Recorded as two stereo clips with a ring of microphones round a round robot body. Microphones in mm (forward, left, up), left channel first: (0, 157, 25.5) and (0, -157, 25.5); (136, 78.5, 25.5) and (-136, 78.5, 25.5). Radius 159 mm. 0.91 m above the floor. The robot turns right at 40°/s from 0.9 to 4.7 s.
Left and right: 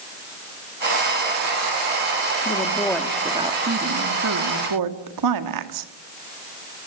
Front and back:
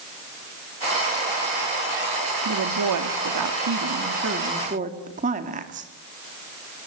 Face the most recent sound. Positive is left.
turn(degrees=-115)